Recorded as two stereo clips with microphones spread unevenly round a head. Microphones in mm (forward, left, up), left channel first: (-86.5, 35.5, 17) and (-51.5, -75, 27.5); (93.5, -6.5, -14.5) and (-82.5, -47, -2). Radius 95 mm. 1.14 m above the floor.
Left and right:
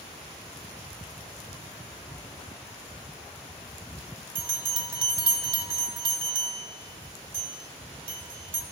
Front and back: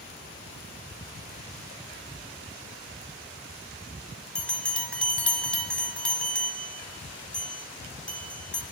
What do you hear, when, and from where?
4.3 s a bell: 75° right, 1.4 m